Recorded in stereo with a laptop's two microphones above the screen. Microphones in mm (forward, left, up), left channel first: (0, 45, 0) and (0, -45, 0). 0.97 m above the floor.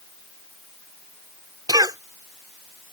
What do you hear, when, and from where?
1.7 s a cough: 45° right (ahead or behind)